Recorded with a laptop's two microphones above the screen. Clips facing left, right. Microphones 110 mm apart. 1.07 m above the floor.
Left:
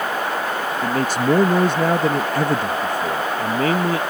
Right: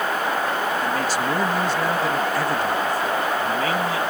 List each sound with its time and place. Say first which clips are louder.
0.8 s a man speaking: left 3 dB; 50° left (ahead or behind)